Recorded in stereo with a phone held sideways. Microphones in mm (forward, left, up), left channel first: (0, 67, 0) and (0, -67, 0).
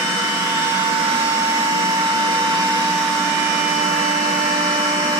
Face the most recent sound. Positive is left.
turn(degrees=-45)  # may be behind; listen again after turning